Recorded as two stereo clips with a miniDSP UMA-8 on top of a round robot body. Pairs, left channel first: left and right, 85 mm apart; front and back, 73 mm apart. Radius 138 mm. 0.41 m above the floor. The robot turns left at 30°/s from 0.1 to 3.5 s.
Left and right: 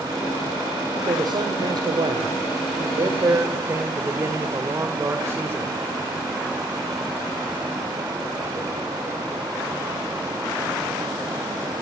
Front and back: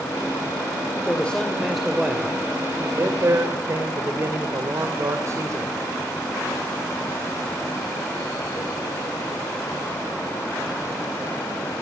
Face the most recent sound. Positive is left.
turn(degrees=-145)